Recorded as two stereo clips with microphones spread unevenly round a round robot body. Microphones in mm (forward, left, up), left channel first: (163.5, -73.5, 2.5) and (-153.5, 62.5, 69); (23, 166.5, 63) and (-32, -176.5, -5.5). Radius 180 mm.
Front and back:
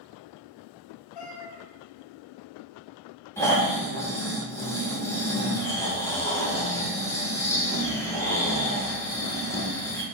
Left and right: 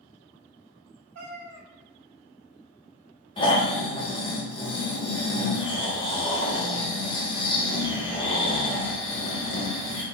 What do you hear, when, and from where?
1.1 s a cat meowing: 50° right, 0.8 m
3.4 s snoring: straight ahead, 0.9 m